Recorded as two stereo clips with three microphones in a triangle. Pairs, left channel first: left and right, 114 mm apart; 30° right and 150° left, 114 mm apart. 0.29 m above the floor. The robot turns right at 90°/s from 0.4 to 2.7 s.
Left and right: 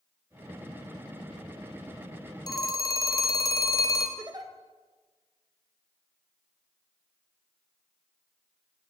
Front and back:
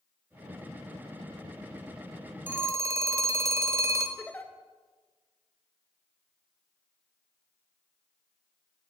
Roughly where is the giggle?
Right.